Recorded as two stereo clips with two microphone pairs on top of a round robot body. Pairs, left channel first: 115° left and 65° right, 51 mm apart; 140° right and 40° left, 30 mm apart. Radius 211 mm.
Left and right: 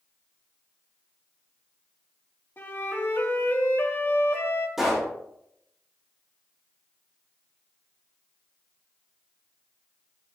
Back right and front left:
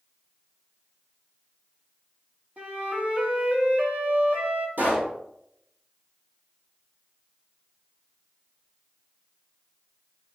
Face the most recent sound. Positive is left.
turn(degrees=20)